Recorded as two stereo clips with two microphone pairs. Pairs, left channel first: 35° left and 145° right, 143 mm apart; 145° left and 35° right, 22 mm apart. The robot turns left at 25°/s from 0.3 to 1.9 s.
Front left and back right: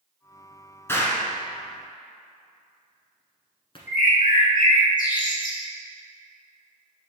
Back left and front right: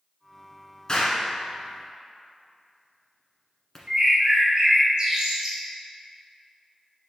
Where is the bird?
20° left, 1.7 m.